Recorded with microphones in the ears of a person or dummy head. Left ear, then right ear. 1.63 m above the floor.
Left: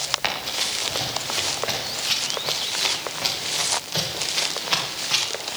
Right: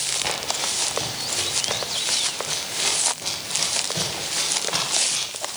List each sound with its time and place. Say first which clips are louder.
0.2 s running footsteps: left 1 dB; 60° left (ahead or behind), 8 m; by 5.2 s 75° left (ahead or behind), 10 m